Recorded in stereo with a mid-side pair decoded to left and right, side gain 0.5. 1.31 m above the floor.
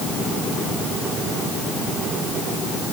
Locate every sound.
Only background noise.